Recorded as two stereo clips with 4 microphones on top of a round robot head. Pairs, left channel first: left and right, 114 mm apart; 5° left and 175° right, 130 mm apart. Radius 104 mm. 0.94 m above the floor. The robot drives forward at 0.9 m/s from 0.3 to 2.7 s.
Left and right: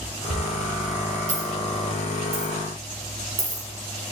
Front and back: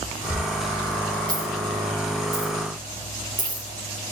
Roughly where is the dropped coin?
Right.